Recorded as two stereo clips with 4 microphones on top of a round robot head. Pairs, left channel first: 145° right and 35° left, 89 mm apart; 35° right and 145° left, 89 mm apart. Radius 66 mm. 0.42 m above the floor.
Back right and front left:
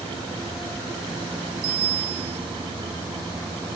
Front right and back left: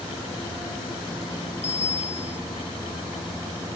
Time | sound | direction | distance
1.6 | a bicycle bell | 30° left | ?